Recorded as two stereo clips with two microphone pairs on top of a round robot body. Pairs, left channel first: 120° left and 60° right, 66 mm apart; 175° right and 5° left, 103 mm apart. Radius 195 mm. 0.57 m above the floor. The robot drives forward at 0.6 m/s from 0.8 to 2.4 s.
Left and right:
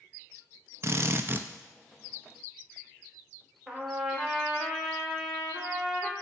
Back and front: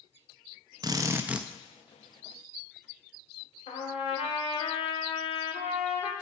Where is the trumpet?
145° right, 0.8 m.